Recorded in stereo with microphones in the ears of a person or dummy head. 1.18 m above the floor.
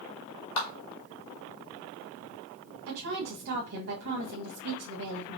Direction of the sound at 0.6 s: 70° left (ahead or behind).